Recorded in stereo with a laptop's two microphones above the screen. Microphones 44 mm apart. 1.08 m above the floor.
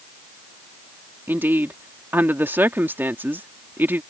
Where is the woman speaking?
50° right (ahead or behind).